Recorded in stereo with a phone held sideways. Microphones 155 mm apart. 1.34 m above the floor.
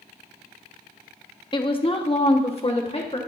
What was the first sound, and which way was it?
A woman speaking, 30° left (ahead or behind).